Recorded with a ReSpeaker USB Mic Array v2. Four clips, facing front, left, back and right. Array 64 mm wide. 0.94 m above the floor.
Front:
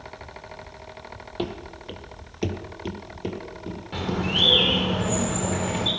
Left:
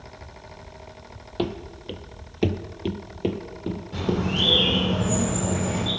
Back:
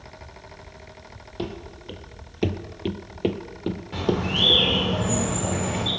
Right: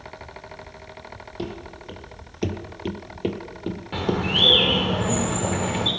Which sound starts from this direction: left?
Running footsteps, at 1.4 s.